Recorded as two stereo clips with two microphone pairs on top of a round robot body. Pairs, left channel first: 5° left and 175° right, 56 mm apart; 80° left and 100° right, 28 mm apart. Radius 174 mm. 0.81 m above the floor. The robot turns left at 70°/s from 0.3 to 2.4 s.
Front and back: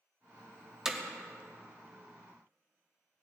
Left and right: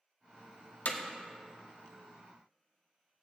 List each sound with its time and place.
0.8 s hammering: 115° left, 1.4 m; by 1.0 s 105° left, 1.4 m